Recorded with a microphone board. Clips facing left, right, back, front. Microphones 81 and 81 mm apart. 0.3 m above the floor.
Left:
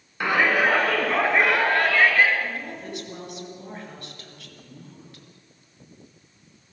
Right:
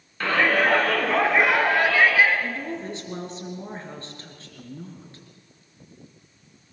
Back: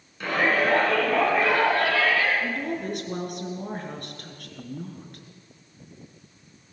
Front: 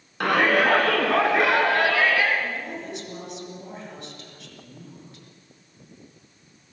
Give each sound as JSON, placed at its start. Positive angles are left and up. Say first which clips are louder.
{"t": 0.2, "sound": "a shout", "louder": "even, front 3 dB", "azimuth_deg": 15, "distance_m": 3.0}
{"t": 2.4, "sound": "a woman speaking", "louder": "right 2 dB, back 3 dB", "azimuth_deg": -145, "distance_m": 4.0}